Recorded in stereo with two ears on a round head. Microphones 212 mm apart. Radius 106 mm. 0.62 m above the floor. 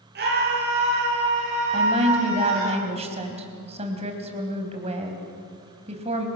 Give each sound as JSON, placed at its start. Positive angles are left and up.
{"t": 0.1, "sound": "a scream", "side_deg": -45, "distance_m": 9.5}
{"t": 1.7, "sound": "a woman speaking", "side_deg": -30, "distance_m": 4.0}